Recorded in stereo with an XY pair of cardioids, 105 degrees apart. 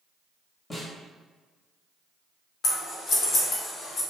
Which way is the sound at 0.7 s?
25° left.